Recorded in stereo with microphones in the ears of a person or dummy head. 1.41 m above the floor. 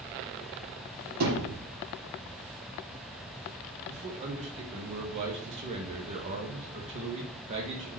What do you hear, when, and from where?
1.2 s a thud: 75° right (ahead or behind), 5 m
3.9 s a man speaking: 35° right (ahead or behind), 2 m